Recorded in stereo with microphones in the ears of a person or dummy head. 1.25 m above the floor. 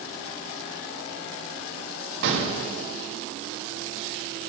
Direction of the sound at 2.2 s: 65° right (ahead or behind).